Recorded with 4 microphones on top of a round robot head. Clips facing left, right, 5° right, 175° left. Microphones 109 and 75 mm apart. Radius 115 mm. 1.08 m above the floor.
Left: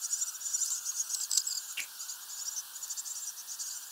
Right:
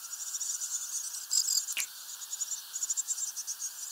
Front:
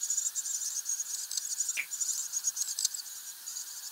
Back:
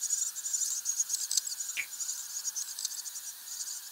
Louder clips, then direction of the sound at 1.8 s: Right 2 dB, front 1 dB; 85° right.